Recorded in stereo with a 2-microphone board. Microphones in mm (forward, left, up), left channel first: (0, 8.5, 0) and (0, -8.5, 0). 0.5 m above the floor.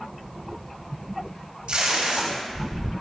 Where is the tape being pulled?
65° right (ahead or behind), 2 m.